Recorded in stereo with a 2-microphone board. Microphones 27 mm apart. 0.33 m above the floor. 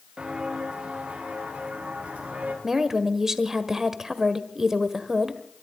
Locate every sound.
0.2 s footsteps: 35° right (ahead or behind), 6.5 m; by 2.5 s 55° right (ahead or behind), 6.5 m
2.6 s a woman speaking: 15° right (ahead or behind), 1.3 m